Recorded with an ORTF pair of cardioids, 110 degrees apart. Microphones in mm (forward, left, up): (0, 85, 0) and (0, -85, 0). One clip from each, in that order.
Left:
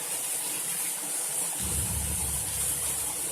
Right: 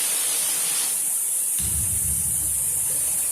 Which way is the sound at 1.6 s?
50° right.